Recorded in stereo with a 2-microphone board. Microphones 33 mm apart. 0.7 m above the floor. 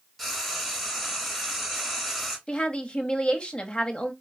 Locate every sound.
0.2 s frying: centre (ahead or behind), 1.6 m
2.5 s a woman speaking: 35° left (ahead or behind), 1.0 m